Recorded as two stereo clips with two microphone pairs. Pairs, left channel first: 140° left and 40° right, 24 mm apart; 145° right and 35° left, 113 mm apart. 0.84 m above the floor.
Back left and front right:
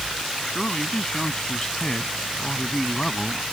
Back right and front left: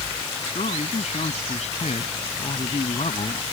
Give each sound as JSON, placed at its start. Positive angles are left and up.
{"t": 0.5, "sound": "a man speaking", "azimuth_deg": -160}